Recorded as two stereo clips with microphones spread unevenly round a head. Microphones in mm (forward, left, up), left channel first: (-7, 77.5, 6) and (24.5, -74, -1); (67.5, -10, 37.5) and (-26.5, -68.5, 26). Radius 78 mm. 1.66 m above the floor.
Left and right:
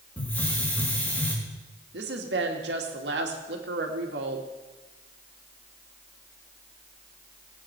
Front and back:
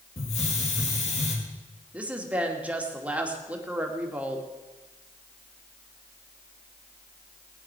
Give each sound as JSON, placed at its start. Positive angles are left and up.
{"t": 0.2, "sound": "a hiss", "azimuth_deg": 25, "distance_m": 3.5}
{"t": 1.9, "sound": "a woman speaking", "azimuth_deg": -70, "distance_m": 2.5}